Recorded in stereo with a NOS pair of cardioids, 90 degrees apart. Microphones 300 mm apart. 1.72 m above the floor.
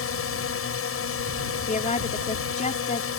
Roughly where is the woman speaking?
Ahead left.